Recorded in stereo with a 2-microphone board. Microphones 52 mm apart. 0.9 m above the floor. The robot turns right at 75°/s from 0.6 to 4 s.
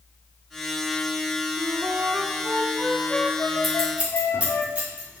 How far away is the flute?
About 0.8 m.